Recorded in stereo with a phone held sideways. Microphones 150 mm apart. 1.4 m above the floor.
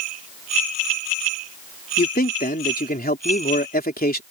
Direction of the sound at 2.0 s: 80° left.